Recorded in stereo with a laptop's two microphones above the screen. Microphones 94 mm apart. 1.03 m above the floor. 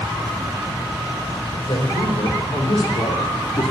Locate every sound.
1.6 s a man speaking: 55° left (ahead or behind), 3.5 m; by 3.7 s 35° left (ahead or behind), 2.5 m